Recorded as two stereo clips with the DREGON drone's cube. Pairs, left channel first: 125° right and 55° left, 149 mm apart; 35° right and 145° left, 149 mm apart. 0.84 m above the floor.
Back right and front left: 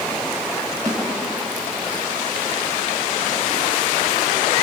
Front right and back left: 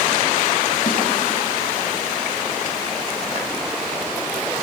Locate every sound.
0.9 s a snare drum: 10° right, 5 m